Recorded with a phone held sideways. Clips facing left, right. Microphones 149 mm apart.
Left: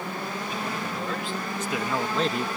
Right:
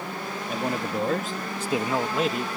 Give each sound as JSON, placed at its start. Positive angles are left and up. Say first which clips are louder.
{"t": 0.5, "sound": "a man speaking", "louder": "right 8 dB", "side_deg": -55}